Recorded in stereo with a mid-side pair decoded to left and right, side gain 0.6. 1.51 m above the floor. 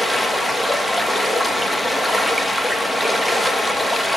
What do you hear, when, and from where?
0.0 s running water: 5° right, 1.9 m